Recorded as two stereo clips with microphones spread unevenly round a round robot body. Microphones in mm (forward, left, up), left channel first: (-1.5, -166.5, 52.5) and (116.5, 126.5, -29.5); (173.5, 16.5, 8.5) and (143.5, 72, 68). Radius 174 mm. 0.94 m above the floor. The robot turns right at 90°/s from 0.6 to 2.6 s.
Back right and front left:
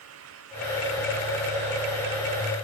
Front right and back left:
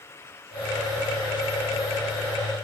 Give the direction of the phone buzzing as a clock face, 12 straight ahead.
I don't hear a phone buzzing.